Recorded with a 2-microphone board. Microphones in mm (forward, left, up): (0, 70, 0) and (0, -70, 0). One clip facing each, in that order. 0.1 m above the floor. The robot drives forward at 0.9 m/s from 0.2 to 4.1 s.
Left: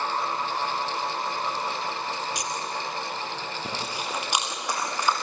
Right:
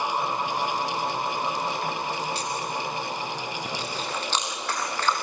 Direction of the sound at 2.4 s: 15° left (ahead or behind).